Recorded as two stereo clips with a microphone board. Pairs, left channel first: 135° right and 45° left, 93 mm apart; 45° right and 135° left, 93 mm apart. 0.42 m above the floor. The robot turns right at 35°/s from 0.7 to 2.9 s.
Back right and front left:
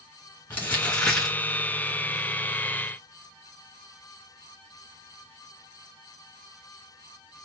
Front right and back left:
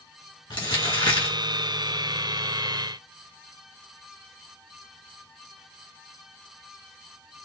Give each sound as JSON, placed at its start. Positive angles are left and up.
{"t": 0.5, "sound": "crumpling", "azimuth_deg": -65, "distance_m": 1.4}